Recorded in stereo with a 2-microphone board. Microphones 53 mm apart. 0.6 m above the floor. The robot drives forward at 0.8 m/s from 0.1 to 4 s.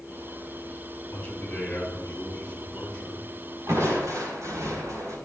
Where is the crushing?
70° right (ahead or behind), 4.5 m; by 5.2 s 75° right (ahead or behind), 4.5 m.